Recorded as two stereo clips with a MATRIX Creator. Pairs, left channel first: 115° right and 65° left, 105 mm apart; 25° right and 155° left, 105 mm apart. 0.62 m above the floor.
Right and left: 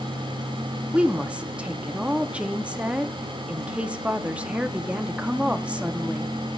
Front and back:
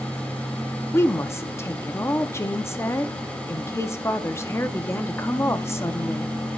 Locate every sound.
0.9 s a woman speaking: 5° left, 0.6 m